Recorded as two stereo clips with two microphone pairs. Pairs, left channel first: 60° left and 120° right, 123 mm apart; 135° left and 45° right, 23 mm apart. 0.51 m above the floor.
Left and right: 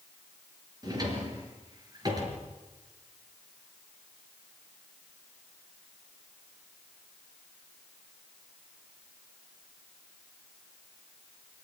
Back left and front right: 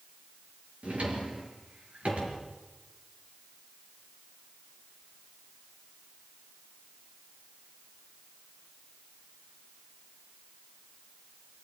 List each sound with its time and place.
0.8 s a drawer: 65° right, 5 m